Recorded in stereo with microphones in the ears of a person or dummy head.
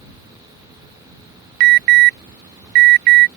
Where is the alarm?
55° right (ahead or behind).